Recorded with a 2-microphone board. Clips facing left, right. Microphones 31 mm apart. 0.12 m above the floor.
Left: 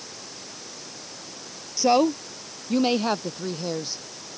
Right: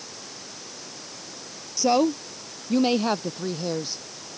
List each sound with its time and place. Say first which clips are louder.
1.8 s a woman speaking: left 1 dB; 15° left (ahead or behind); by 4.0 s centre (ahead or behind)